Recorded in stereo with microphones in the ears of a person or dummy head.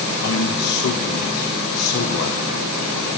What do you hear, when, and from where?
0.2 s a man speaking: 60° left (ahead or behind), 1.1 m